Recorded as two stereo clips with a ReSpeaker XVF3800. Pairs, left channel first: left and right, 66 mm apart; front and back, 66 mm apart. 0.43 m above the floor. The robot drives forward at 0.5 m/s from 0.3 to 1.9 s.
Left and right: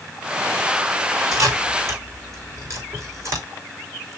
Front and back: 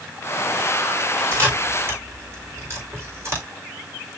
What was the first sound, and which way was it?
A camera shutter, 125° right.